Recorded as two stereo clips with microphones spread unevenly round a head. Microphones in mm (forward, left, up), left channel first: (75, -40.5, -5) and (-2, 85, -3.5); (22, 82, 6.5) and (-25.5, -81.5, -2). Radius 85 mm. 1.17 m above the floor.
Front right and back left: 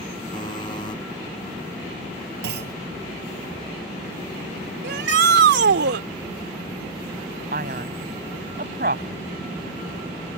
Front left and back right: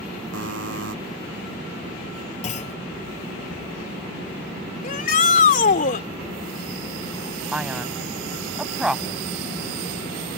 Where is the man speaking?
170° left.